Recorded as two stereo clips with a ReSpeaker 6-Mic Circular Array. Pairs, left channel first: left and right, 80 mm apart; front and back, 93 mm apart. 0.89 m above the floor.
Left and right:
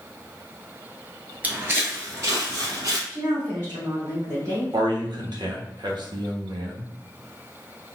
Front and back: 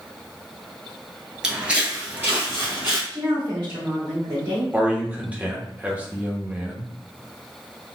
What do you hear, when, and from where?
1.4 s footsteps: 110° right, 0.9 m; by 3.0 s 120° right, 1.5 m
3.1 s a woman speaking: 140° right, 1.9 m
4.7 s a man speaking: 105° right, 0.8 m